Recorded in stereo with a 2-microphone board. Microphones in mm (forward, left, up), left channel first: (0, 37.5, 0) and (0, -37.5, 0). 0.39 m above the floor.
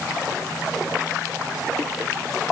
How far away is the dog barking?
No dog barking in this recording.